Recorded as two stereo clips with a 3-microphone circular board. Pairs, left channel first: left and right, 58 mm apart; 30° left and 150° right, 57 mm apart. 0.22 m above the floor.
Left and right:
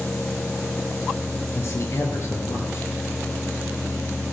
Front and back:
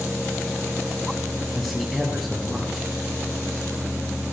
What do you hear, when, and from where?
1.6 s a man speaking: 120° left, 5 m